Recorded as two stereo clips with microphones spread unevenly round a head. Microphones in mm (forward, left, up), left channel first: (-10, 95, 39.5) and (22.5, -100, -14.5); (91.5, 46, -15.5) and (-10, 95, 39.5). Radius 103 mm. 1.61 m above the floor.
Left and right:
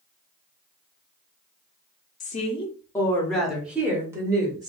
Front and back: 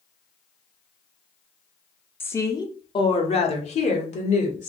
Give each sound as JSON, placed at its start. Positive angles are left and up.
{"t": 2.2, "sound": "a woman speaking", "azimuth_deg": 55, "distance_m": 0.8}